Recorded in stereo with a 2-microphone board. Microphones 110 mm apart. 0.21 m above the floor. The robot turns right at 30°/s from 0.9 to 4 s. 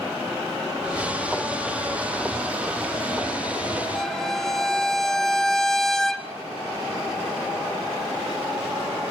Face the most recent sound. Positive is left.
turn(degrees=5)  # may be behind; listen again after turning